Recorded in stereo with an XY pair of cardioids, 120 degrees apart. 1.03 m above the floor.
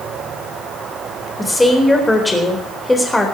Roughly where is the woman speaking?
Ahead.